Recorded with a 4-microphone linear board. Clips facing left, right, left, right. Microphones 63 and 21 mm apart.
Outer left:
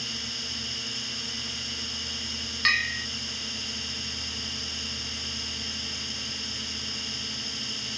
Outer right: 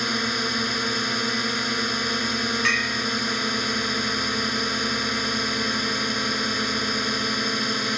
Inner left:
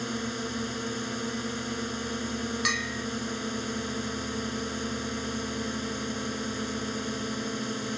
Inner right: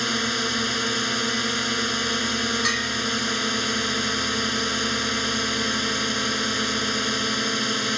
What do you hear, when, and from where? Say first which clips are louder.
0.0 s a drone: outer right 14 dB, inner right 9 dB; 60° right (ahead or behind)
2.6 s a bell: even, inner right 5 dB; 10° right (ahead or behind)